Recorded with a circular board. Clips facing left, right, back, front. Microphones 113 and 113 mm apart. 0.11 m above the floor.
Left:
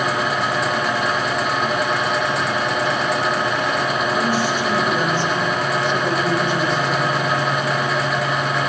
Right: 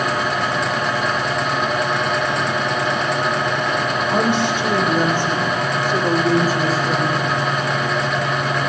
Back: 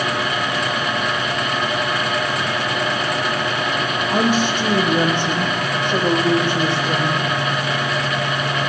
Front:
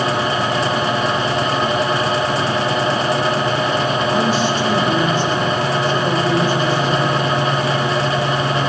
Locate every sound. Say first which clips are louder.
4.1 s a woman speaking: right 2 dB, front 1 dB; 150° right, 5 m; by 7.3 s straight behind, 7 m